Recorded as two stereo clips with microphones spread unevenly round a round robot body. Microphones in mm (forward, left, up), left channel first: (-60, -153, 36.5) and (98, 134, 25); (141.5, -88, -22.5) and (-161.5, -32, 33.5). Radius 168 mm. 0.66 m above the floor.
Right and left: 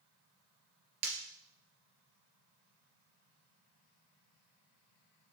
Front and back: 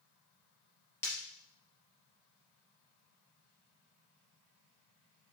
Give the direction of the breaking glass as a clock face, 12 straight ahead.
9 o'clock.